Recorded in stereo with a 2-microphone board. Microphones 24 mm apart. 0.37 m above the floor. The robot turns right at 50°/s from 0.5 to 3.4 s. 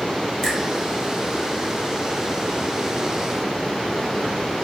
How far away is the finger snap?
About 1.3 m.